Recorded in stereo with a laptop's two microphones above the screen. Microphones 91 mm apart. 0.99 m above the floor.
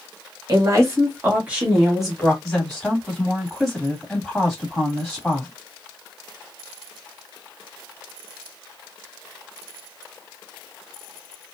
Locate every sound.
0.5 s a woman speaking: 45° right (ahead or behind), 1.6 m; by 2.3 s 5° left (ahead or behind), 2 m
2.4 s a woman speaking: centre (ahead or behind), 2.5 m